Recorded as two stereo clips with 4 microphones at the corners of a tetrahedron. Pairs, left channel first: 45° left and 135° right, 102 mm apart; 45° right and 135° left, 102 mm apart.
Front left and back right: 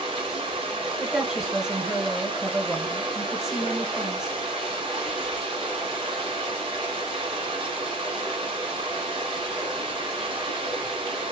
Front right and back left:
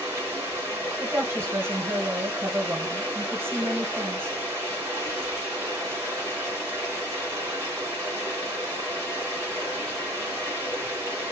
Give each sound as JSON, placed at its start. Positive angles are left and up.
{"t": 0.0, "sound": "running water", "azimuth_deg": -160, "distance_m": 3.5}
{"t": 1.0, "sound": "a woman speaking", "azimuth_deg": 145, "distance_m": 1.1}